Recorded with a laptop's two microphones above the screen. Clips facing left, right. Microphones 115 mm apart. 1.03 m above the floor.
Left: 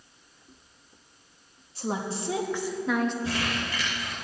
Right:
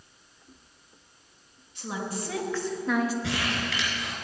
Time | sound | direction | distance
1.8 | a woman speaking | 35° left (ahead or behind) | 1.3 m
3.2 | crumpling | 75° right (ahead or behind) | 3 m